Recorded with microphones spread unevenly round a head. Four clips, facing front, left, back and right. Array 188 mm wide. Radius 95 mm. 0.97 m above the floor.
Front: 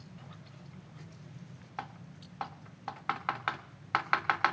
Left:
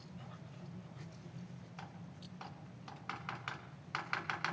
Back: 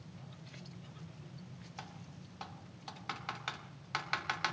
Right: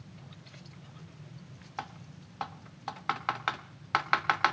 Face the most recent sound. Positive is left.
turn(degrees=-60)